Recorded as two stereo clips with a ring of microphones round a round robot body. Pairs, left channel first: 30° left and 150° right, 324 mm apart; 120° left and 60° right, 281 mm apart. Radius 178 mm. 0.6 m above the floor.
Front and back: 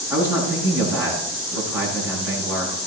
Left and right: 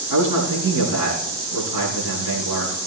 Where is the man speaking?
65° right, 7 m.